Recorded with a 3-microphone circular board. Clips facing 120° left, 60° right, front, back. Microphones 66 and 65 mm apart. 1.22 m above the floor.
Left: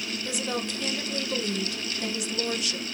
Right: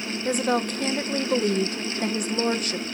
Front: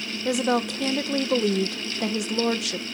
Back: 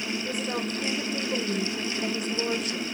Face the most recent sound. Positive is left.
turn(degrees=-10)